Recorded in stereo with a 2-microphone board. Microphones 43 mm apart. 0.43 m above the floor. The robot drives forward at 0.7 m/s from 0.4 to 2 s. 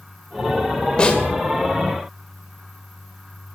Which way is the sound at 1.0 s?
25° left (ahead or behind).